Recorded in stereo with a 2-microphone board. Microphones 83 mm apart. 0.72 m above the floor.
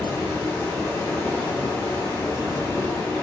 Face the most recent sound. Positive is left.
turn(degrees=50)  # may be behind; listen again after turning